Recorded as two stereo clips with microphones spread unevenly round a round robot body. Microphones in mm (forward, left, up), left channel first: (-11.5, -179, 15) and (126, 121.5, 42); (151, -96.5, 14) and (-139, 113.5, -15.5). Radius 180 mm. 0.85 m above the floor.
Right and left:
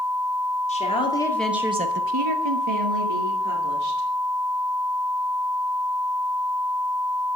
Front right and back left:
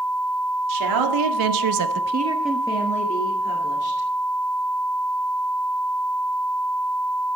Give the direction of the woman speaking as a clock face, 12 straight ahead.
6 o'clock.